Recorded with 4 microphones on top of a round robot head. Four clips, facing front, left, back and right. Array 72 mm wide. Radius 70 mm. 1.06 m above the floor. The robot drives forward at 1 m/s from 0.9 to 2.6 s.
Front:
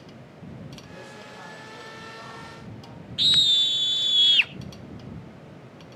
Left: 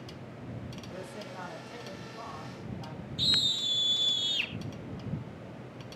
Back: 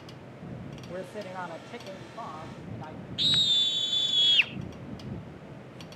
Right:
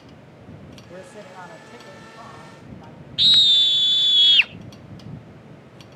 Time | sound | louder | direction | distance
0.9 | a man speaking | right 5 dB, back 5 dB | 150° right | 1.2 m
3.2 | a scream | right 13 dB, front 5 dB | 75° right | 0.9 m